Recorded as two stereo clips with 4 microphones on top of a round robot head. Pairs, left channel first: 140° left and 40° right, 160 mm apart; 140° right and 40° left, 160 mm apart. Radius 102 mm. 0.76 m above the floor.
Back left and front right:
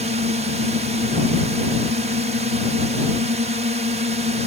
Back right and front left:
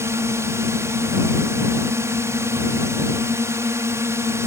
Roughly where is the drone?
Ahead right.